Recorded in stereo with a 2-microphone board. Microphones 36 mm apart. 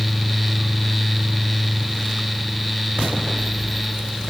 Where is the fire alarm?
No fire alarm in this recording.